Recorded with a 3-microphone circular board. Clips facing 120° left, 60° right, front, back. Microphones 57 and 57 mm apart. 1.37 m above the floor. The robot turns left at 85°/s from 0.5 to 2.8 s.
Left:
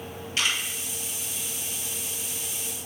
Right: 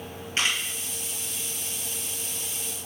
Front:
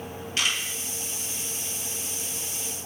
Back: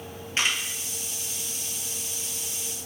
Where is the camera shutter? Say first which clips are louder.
Right 1 dB, back 1 dB; 120° right, 1.5 m; by 0.6 s 130° right, 1.5 m.